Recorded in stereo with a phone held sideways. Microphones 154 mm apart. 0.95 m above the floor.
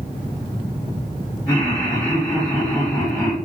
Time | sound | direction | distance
1.5 | laughter | 10° left (ahead or behind) | 1.2 m